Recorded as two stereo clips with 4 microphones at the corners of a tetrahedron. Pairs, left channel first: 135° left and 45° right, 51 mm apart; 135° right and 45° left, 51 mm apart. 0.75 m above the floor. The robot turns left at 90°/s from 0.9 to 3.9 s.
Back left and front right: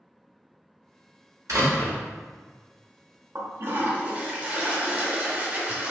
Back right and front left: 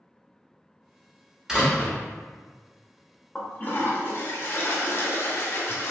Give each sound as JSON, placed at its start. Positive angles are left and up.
{"t": 1.5, "sound": "a door slam", "azimuth_deg": -30, "distance_m": 1.4}
{"t": 3.4, "sound": "a toilet flushing", "azimuth_deg": -55, "distance_m": 0.8}